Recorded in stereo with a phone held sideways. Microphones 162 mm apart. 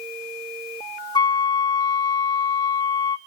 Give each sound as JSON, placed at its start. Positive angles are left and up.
{"t": 1.1, "sound": "a flute", "side_deg": 25, "distance_m": 0.5}